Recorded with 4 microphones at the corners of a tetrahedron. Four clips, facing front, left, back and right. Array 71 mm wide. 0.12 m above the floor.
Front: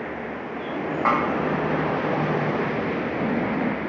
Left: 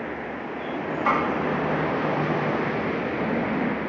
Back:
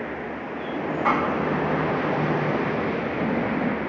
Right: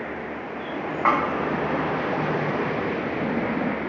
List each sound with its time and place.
1.1 s a snare drum: 60° right, 6 m